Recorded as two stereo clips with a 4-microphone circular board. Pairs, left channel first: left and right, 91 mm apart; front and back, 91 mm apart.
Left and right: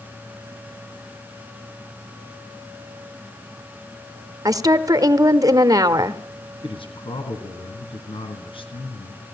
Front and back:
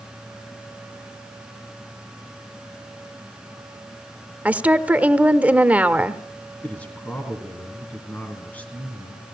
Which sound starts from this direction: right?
A woman speaking, at 4.5 s.